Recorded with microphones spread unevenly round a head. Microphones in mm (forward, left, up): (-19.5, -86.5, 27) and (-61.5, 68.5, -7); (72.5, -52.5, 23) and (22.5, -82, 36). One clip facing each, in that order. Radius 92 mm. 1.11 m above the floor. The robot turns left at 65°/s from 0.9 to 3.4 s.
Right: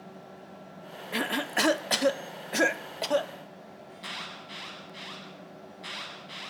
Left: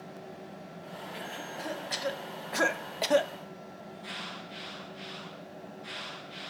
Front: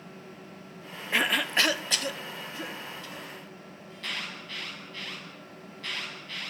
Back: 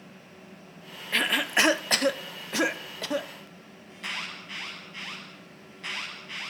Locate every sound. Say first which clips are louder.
1.1 s a cough: right 13 dB, back 1 dB; 45° right, 0.6 m; by 3.3 s 175° left, 0.6 m
3.9 s an alarm: left 1 dB, back 1 dB; 80° right, 9 m